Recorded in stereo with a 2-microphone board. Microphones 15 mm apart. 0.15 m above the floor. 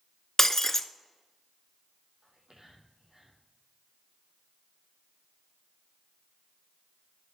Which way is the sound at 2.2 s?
40° right (ahead or behind).